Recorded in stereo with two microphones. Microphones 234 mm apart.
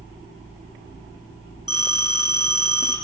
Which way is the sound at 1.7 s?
85° left.